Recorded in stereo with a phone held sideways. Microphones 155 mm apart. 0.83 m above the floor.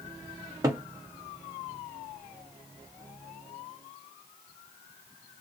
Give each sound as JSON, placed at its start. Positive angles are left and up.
{"t": 0.6, "sound": "a cupboard door", "side_deg": -25, "distance_m": 0.9}